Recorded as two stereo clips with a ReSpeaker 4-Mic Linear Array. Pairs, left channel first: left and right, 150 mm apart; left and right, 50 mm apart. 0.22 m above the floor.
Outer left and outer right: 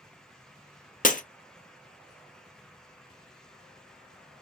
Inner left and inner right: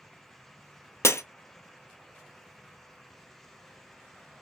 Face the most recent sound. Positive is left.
turn(degrees=65)  # may be behind; listen again after turning